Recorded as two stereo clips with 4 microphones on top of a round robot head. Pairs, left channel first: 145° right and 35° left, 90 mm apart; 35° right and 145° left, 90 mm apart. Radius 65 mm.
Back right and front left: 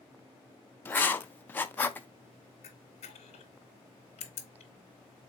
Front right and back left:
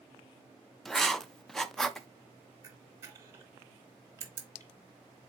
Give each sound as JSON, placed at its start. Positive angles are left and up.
{"t": 0.8, "sound": "writing", "azimuth_deg": -115, "distance_m": 0.5}
{"t": 2.6, "sound": "a camera shutter", "azimuth_deg": -155, "distance_m": 0.8}